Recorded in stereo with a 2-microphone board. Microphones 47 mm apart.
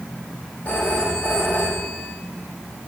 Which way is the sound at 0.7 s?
35° left (ahead or behind).